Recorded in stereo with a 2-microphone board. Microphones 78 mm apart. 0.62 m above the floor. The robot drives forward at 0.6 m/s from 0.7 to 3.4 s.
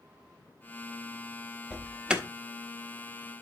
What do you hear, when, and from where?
1.7 s an alarm: 10° right (ahead or behind), 1.4 m